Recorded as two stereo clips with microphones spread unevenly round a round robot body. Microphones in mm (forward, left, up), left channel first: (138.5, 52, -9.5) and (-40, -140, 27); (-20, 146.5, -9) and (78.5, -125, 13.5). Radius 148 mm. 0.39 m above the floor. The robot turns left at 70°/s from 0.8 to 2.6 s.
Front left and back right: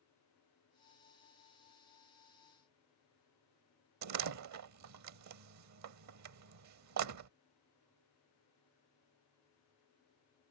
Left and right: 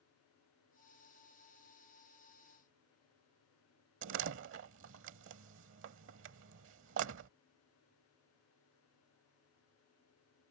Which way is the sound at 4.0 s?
120° right.